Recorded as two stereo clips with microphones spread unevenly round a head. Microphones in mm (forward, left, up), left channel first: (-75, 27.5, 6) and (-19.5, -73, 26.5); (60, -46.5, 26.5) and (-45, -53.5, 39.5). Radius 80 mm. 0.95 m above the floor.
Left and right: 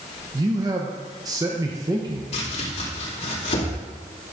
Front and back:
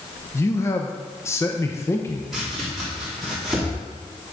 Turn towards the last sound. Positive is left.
turn(degrees=95)